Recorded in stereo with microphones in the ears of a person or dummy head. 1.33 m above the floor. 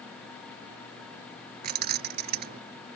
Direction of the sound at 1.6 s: 40° right (ahead or behind).